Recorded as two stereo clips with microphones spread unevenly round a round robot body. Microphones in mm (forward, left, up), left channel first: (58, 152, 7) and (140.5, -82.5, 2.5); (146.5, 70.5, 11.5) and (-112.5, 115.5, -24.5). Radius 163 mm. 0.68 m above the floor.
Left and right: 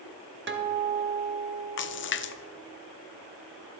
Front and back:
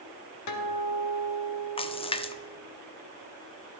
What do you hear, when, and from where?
0.5 s a guitar: 35° right, 1.0 m
1.8 s a splash: 65° left, 0.6 m